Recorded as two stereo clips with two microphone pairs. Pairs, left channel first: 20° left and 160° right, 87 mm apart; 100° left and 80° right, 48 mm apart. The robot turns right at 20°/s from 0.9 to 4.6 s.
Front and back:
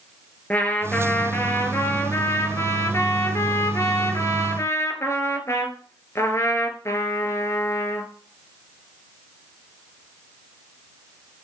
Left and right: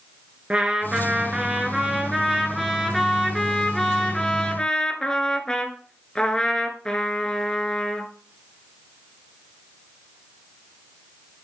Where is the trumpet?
35° right, 1.0 m; by 8.1 s 35° left, 1.0 m.